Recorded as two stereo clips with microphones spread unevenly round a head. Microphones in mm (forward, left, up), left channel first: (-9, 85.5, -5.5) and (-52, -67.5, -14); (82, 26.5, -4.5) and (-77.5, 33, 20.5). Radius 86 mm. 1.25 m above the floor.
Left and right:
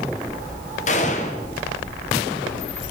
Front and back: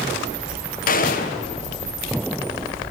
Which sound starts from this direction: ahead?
A gunshot, at 0.9 s.